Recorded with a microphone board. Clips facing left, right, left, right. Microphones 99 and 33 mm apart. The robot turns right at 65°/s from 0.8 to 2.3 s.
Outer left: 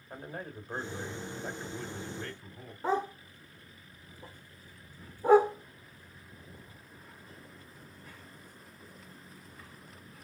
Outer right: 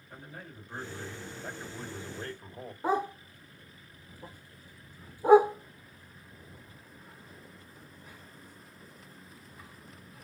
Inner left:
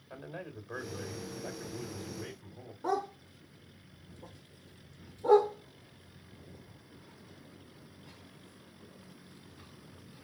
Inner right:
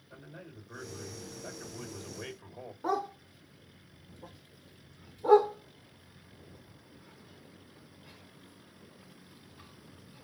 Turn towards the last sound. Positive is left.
turn(degrees=-10)  # may be behind; listen again after turning